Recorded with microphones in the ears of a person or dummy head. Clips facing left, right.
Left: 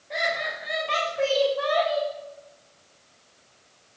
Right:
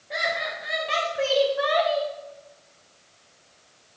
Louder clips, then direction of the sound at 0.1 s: Even; 5° right (ahead or behind).